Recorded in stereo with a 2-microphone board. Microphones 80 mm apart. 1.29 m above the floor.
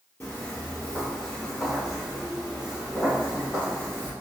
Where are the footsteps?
20° left (ahead or behind), 1.8 m; by 4.1 s 25° right (ahead or behind), 2.5 m.